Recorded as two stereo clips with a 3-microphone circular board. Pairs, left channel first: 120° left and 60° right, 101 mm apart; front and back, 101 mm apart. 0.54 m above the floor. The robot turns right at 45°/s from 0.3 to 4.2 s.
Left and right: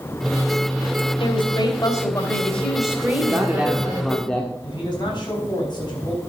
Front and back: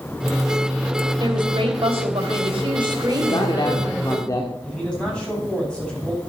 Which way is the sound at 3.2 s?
5° right.